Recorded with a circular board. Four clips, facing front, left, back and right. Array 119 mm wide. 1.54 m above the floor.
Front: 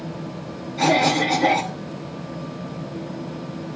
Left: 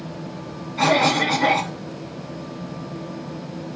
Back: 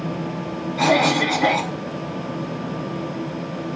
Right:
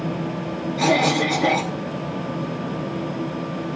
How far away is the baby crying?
I don't hear a baby crying.